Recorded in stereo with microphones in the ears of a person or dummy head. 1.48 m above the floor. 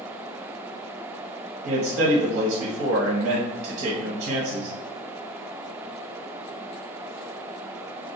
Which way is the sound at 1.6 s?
75° right (ahead or behind).